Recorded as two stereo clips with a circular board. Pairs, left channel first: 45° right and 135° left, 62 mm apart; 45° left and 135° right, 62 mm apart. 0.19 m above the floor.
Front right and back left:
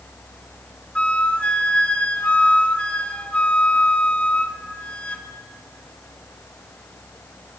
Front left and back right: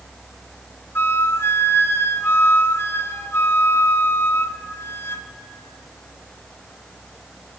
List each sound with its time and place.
0.9 s a flute: 15° left, 0.6 m